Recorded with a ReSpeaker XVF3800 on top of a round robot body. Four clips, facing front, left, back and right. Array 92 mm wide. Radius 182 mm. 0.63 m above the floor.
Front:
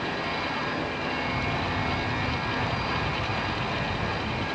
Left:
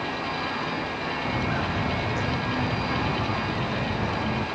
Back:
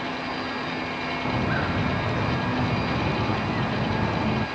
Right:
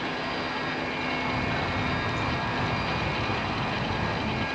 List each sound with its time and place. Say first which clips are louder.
1.2 s footsteps: left 1 dB, back 3 dB; 160° left; by 4.5 s 165° left